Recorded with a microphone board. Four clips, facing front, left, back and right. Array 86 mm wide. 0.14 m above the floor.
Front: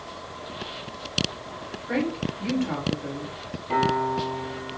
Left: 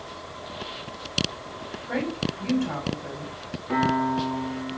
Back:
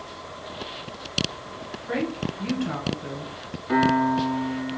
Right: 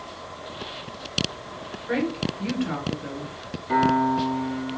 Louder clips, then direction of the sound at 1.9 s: Right 3 dB, front 1 dB; 120° right.